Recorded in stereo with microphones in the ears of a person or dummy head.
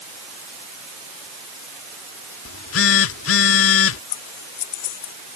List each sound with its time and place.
2.5 s a phone buzzing: 85° left
4.1 s scissors: 60° left (ahead or behind)